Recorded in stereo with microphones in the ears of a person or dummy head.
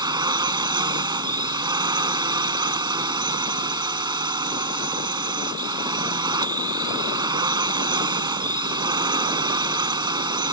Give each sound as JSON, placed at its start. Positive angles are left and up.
{"t": 0.0, "sound": "a drone", "side_deg": -20}